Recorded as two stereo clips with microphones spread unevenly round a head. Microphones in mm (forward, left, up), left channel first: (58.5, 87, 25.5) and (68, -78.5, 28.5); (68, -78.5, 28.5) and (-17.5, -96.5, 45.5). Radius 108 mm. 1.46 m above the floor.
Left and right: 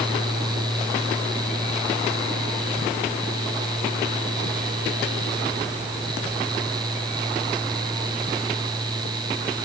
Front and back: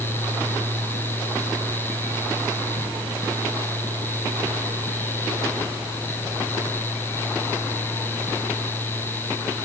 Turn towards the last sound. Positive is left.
No sound to turn to.